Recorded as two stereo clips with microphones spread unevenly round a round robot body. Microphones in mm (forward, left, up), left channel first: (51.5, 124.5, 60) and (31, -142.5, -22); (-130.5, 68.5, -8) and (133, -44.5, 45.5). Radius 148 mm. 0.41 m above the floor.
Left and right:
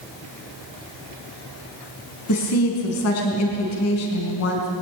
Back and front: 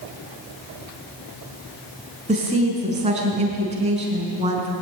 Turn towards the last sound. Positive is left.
turn(degrees=50)